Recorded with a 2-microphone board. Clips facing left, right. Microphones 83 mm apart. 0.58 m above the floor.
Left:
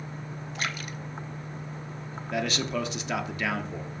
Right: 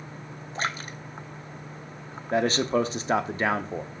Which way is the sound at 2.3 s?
35° right (ahead or behind).